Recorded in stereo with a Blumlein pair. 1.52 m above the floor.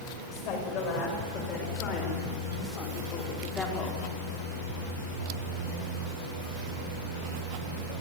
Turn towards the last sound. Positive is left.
turn(degrees=15)